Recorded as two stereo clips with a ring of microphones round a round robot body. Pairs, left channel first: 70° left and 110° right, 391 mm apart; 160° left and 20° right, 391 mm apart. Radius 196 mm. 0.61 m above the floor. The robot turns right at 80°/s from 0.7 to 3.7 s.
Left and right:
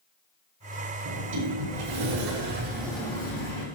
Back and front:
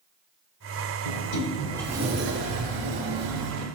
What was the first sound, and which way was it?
A sliding door, 175° right.